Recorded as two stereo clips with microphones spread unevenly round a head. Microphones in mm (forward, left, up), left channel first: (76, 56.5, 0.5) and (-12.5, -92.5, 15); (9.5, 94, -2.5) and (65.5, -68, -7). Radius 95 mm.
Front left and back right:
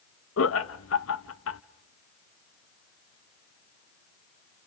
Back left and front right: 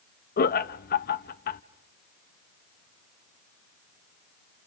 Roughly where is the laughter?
Left.